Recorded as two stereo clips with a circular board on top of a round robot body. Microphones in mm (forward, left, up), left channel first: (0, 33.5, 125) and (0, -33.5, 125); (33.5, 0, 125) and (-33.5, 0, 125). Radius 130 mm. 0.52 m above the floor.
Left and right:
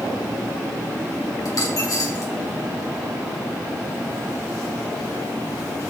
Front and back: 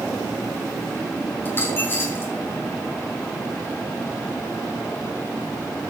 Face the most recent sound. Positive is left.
turn(degrees=55)